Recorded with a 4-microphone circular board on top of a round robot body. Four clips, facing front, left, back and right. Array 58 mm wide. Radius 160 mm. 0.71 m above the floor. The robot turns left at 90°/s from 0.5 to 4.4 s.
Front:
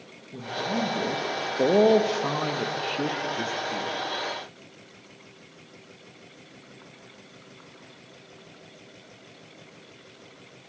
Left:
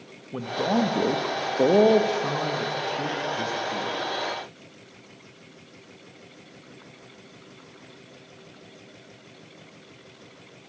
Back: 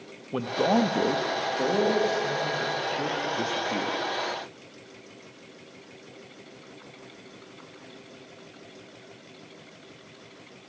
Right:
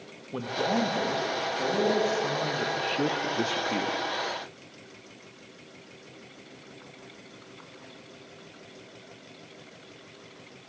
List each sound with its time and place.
0.3 s a man speaking: 170° left, 0.9 m; by 4.0 s 140° right, 0.9 m